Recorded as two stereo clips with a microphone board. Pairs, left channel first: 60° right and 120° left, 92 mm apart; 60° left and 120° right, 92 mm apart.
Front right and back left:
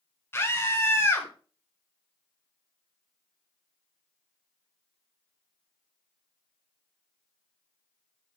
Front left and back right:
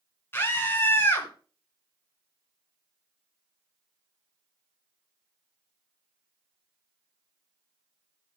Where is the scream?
Straight ahead, 2.5 m.